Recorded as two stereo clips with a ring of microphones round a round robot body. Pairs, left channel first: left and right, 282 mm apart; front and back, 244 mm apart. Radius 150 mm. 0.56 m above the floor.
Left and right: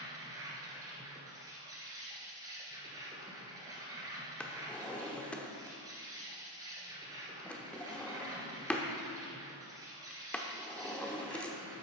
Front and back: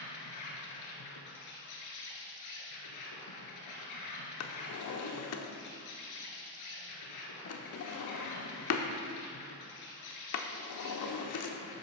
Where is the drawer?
5° left, 0.9 m.